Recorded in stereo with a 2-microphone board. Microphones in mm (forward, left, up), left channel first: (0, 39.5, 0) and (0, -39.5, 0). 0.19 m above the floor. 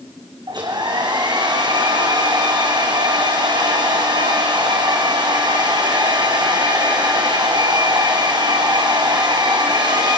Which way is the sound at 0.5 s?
60° right (ahead or behind).